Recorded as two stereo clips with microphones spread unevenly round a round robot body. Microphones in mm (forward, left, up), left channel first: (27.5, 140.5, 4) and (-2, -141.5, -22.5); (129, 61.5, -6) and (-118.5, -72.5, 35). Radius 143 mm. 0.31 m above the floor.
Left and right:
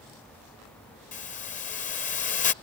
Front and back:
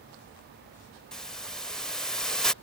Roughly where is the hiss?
Left.